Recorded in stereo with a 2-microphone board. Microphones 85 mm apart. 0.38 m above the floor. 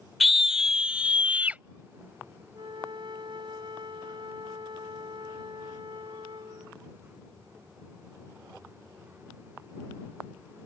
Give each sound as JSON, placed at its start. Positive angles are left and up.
{"t": 0.2, "sound": "a scream", "side_deg": 0}
{"t": 2.5, "sound": "a flute", "side_deg": -70}